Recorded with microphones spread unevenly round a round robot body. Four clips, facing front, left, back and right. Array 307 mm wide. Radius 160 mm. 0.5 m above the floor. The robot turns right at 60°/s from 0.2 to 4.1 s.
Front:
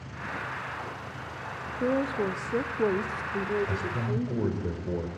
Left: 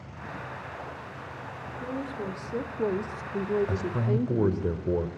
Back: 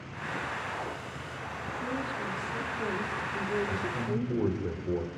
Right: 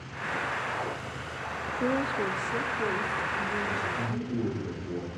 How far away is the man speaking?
About 2 m.